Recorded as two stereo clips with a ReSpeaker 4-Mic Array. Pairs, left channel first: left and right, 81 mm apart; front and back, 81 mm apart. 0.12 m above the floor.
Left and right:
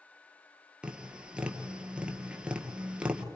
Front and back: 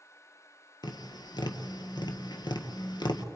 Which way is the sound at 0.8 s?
15° right.